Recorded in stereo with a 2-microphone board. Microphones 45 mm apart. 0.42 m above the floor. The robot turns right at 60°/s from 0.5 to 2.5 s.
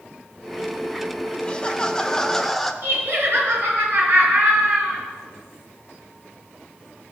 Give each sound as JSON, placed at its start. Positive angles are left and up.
{"t": 1.4, "sound": "laughter", "side_deg": 20, "distance_m": 0.8}
{"t": 2.8, "sound": "laughter", "side_deg": -50, "distance_m": 5.0}